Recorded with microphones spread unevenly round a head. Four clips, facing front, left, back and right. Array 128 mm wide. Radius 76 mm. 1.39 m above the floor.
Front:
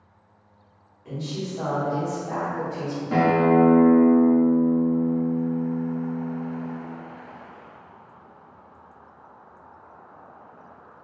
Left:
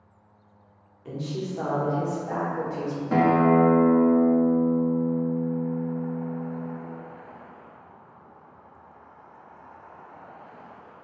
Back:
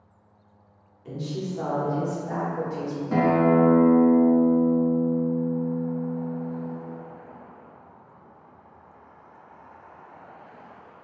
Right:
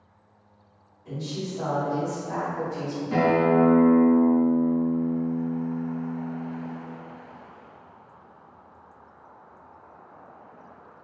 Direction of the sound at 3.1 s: 65° left.